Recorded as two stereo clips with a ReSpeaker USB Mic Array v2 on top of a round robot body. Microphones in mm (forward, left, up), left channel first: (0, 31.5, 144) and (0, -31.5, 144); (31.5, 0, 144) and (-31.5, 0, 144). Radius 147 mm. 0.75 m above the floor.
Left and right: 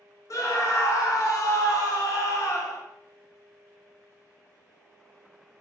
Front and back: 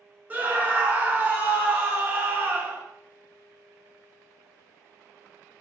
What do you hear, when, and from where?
0.3 s a scream: 115° left, 1.0 m